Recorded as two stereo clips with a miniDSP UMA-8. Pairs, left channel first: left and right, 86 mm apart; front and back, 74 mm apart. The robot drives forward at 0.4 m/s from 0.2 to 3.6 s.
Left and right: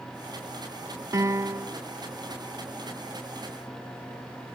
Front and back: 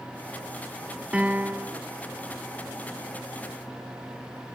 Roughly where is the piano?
Behind right.